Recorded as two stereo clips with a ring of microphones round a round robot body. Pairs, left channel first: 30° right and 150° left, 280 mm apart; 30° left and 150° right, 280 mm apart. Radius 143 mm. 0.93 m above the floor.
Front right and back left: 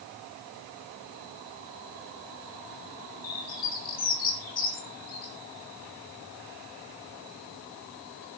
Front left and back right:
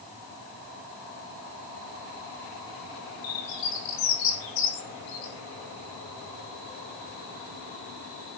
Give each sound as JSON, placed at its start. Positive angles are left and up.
{"t": 3.2, "sound": "a bird", "azimuth_deg": 30, "distance_m": 6.0}